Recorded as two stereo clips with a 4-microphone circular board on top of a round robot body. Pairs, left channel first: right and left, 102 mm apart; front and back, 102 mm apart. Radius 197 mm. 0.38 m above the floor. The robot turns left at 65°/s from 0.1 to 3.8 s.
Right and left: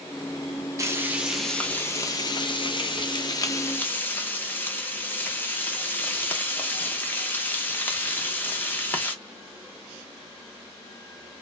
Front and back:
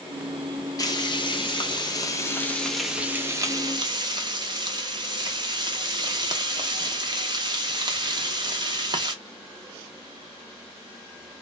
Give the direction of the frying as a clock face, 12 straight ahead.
11 o'clock.